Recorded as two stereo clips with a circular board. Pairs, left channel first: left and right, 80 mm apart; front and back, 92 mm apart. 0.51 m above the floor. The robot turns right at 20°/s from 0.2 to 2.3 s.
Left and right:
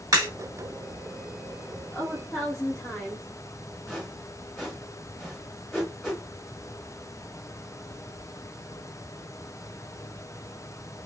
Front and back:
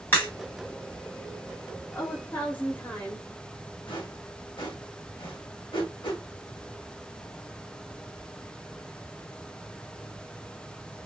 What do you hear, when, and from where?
0.1 s a crack: 60° right, 2.5 m
1.9 s a woman speaking: 30° left, 1.1 m; by 3.3 s 40° left, 1.1 m
3.9 s a whoosh: straight ahead, 2.0 m